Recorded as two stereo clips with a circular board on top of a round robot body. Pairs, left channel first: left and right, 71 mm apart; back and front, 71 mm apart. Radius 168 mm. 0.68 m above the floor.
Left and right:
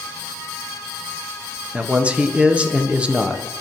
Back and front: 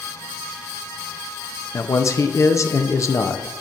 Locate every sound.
1.7 s a man speaking: 160° right, 0.7 m